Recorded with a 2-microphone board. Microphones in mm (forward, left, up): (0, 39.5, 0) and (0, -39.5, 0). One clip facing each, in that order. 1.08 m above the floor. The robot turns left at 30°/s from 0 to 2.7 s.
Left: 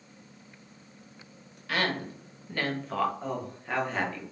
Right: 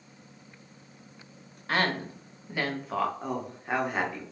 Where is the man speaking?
15° right (ahead or behind), 0.8 m.